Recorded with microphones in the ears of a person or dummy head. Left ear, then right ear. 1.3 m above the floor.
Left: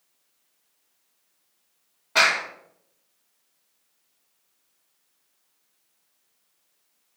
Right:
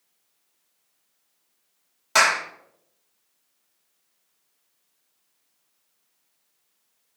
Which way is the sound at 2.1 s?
80° right.